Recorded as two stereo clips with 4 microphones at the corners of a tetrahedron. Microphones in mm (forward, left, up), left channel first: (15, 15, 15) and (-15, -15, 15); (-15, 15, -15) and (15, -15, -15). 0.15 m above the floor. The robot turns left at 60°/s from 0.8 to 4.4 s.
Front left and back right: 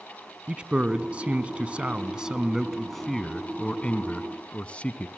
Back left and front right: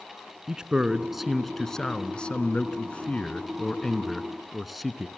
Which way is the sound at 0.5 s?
100° right.